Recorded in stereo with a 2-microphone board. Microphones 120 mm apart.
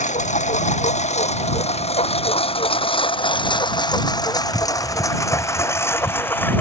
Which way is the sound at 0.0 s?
80° left.